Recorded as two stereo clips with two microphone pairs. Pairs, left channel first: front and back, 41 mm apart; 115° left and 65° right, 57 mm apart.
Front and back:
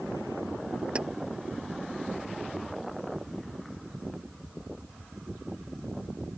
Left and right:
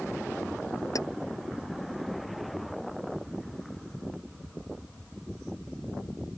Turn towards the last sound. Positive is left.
turn(degrees=120)